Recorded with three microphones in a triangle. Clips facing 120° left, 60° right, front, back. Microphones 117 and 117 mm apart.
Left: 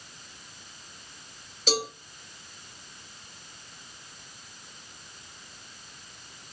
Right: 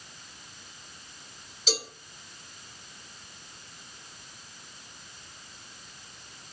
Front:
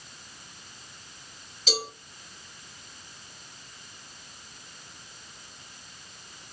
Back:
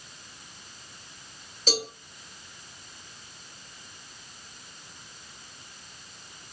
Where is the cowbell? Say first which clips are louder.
Left 5 dB, back 2 dB; 145° left, 1.6 m.